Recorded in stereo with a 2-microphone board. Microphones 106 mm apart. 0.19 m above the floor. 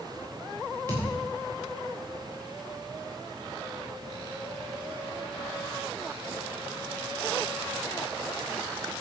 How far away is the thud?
About 5.5 m.